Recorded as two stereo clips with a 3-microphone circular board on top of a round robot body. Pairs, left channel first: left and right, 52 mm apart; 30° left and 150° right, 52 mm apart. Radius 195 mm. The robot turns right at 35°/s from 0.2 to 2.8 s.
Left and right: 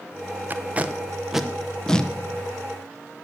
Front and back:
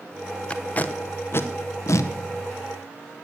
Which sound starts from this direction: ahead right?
Tape being pulled, at 0.5 s.